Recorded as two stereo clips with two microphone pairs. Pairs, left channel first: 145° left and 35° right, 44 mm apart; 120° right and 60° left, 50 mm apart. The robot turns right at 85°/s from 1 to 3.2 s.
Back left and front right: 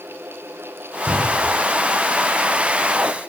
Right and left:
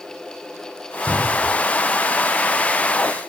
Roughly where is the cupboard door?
Left.